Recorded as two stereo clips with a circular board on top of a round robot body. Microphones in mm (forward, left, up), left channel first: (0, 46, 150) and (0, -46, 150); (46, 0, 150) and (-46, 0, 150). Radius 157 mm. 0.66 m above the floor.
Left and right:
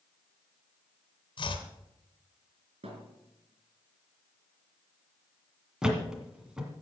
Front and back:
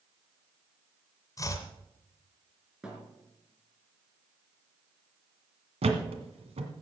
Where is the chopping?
55° left, 1.6 m.